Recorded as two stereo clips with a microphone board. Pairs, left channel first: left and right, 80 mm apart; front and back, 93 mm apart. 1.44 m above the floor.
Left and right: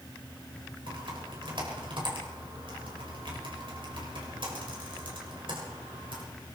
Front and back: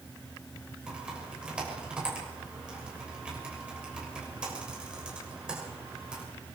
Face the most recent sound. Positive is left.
turn(degrees=-100)